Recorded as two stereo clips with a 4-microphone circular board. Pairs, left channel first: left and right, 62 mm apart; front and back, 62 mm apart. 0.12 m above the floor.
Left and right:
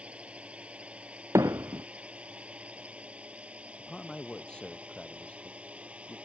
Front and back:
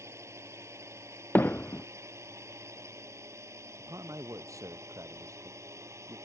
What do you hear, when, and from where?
0.0 s a drone: 155° right
1.4 s hammering: 60° right
3.8 s a man speaking: 160° left